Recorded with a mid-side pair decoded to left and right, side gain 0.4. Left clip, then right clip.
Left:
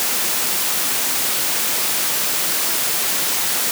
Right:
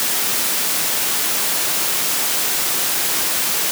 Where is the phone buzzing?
No phone buzzing in this recording.